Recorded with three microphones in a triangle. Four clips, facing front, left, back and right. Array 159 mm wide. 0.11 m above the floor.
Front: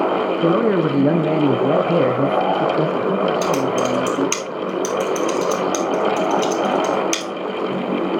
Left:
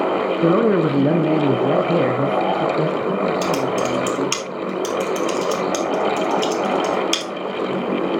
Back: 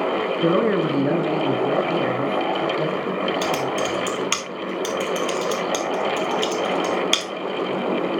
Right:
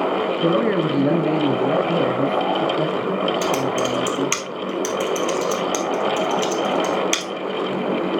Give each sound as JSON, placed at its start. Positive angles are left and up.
{"t": 0.4, "sound": "a man speaking", "azimuth_deg": 75, "distance_m": 1.1}
{"t": 3.4, "sound": "typing on a keyboard", "azimuth_deg": -160, "distance_m": 2.0}